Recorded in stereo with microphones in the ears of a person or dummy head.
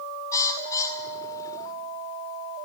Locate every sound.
0.3 s a bird: 15° left (ahead or behind), 2 m